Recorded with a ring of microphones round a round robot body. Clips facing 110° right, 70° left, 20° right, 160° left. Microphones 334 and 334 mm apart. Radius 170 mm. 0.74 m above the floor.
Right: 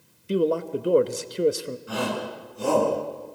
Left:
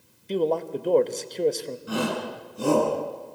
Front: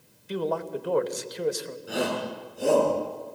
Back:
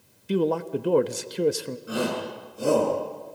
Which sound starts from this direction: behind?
A man speaking, at 0.3 s.